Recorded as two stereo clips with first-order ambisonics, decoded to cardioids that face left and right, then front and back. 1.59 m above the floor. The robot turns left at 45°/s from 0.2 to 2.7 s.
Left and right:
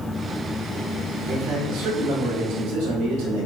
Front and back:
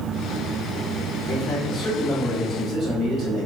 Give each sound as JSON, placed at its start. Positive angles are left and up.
{"t": 1.3, "sound": "a man speaking", "azimuth_deg": -45, "distance_m": 1.6}